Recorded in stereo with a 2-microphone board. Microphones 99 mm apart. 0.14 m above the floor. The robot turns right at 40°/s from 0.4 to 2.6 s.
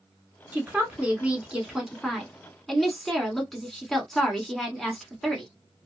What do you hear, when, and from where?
0.5 s a woman speaking: 20° right (ahead or behind), 1.0 m; by 5.5 s 5° left (ahead or behind), 1.0 m